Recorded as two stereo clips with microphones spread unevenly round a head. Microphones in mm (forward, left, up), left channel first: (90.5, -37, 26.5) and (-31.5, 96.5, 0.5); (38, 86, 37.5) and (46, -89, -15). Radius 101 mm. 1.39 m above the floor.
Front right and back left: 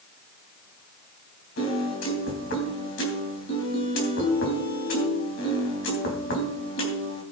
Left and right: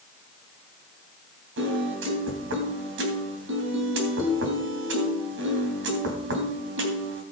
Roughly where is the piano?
Right.